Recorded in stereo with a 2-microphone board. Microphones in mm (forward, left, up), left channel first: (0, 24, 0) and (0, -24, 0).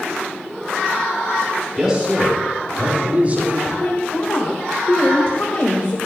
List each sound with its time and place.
1.8 s a man speaking: 10° right (ahead or behind), 3.5 m; by 3.7 s 40° right (ahead or behind), 3 m
3.8 s a woman speaking: 55° left (ahead or behind), 1.8 m